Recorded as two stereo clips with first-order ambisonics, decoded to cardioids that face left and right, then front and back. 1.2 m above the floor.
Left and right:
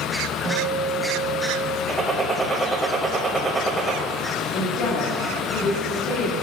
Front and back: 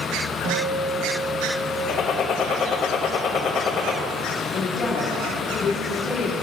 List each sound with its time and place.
0.4 s a guitar: 170° right, 1.3 m
1.9 s a gunshot: 20° right, 1.1 m
4.5 s a woman speaking: 55° left, 1.3 m